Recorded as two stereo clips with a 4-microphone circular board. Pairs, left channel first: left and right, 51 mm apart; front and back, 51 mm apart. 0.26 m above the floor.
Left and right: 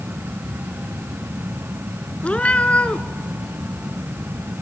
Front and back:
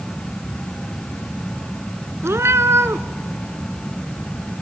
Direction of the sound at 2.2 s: 155° left.